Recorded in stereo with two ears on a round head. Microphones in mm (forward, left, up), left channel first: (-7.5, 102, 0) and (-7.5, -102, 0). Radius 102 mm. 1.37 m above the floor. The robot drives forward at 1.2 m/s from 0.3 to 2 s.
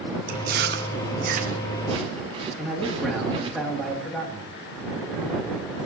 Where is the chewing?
35° right (ahead or behind), 1.2 m; by 3.6 s 25° right (ahead or behind), 1.8 m.